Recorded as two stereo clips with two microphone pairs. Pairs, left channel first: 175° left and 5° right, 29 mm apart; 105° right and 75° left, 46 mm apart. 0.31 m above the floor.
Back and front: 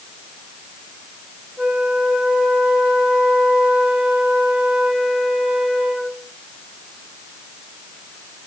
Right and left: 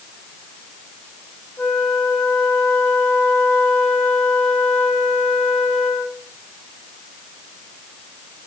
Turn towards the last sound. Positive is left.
turn(degrees=-70)